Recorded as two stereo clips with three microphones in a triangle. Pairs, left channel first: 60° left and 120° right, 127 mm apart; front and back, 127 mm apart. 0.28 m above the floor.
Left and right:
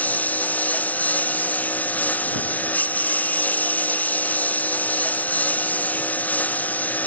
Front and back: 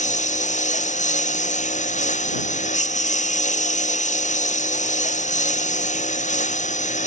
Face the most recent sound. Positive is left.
turn(degrees=-20)